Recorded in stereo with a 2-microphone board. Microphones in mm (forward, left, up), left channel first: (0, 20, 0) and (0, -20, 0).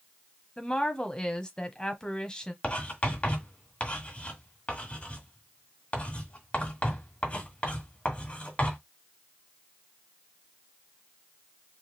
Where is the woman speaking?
20° left (ahead or behind), 1.2 m.